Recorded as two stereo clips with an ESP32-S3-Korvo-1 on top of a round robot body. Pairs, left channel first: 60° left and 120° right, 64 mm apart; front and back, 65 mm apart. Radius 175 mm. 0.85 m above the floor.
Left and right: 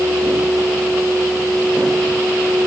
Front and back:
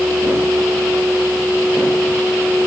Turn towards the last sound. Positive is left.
No sound to turn to.